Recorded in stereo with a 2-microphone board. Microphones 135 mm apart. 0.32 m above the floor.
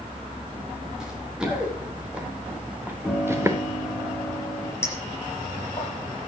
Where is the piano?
5° right (ahead or behind), 3.5 m.